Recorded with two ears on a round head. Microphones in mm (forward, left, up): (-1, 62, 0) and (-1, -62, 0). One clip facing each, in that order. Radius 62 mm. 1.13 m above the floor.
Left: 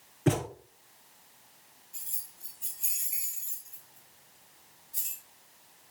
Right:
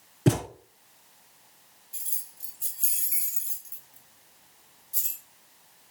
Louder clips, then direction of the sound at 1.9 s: Right 1 dB; 65° right (ahead or behind).